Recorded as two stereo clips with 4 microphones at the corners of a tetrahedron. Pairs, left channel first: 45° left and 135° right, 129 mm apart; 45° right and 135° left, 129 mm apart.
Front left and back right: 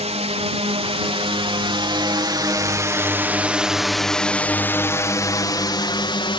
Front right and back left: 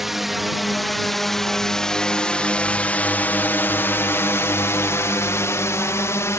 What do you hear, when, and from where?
0.0 s a drone: 135° right; by 6.4 s 15° left